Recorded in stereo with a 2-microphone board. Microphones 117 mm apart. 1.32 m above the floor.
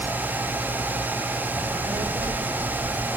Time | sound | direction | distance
1.5 | a child speaking | 70° right (ahead or behind) | 2 m